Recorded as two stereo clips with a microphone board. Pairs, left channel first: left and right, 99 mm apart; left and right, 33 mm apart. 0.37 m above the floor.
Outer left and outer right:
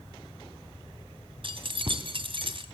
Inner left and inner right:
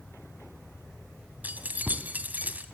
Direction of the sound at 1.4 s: 60° right (ahead or behind).